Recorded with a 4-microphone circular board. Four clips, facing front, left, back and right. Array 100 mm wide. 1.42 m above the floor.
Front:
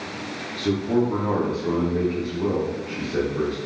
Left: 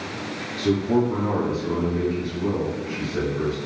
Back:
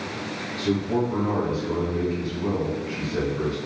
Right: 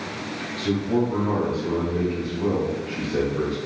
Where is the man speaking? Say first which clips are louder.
Left 2 dB, front 2 dB; 55° left, 0.7 m; by 3.6 s 55° right, 1.3 m.